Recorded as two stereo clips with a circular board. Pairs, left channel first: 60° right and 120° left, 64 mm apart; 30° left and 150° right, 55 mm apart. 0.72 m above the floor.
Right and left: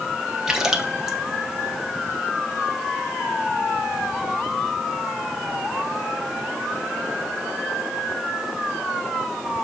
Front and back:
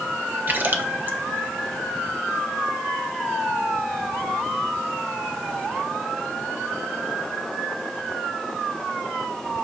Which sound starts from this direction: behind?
A splash, at 0.5 s.